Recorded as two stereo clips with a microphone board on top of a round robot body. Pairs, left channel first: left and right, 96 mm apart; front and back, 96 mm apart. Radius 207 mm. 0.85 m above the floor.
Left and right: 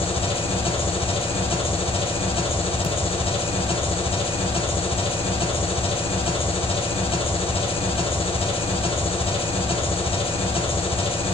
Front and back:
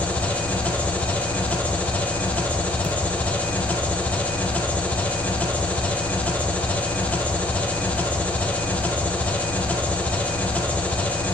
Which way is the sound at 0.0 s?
75° left.